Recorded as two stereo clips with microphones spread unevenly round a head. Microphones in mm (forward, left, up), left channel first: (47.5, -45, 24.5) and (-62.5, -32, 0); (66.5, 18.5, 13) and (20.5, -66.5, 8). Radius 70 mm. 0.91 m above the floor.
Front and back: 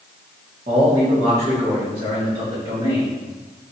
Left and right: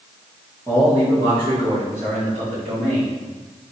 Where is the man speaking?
175° right, 1.4 m; by 3.1 s 140° right, 3 m.